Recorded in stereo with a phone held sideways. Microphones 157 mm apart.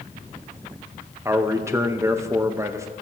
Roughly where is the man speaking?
Centre.